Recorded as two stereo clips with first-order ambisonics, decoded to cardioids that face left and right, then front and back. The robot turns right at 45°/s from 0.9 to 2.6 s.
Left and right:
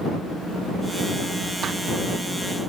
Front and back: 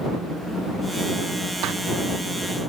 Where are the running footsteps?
150° right; by 1.7 s 145° right.